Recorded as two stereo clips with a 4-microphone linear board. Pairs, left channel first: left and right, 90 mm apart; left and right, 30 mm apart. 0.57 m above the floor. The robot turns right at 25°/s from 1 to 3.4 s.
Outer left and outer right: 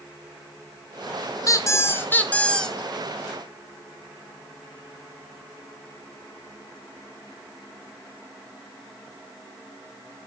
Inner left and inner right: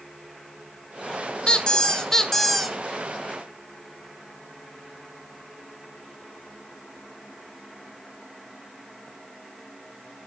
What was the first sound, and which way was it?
A squeak, 140° left.